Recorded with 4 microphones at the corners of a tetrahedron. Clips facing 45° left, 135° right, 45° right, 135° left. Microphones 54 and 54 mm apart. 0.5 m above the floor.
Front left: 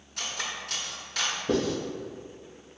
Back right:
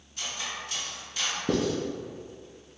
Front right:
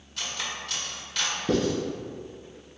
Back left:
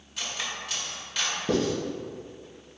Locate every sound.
0.2 s cutlery clinking: 50° left, 0.9 m
1.5 s writing: 140° right, 1.6 m